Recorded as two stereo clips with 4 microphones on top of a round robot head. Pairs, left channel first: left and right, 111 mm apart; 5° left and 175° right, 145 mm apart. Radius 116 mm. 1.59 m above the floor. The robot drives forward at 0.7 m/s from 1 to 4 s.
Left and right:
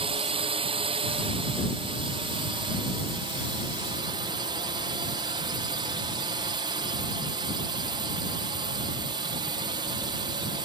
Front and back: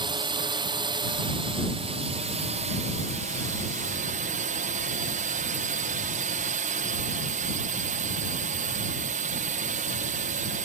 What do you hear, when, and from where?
0.0 s a drone: 120° right; by 10.7 s 140° right